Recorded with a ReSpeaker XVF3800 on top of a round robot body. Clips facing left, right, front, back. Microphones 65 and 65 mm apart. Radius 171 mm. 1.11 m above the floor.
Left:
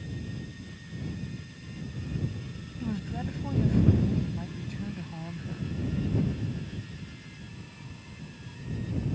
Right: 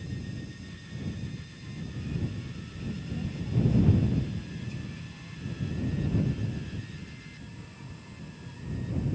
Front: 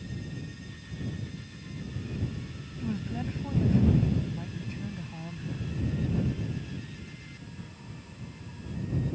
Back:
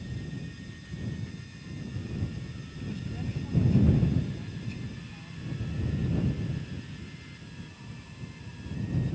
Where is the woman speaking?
55° left.